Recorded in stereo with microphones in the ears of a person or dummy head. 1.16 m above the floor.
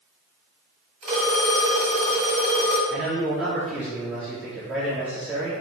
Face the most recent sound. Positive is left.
turn(degrees=0)  # may be behind; listen again after turning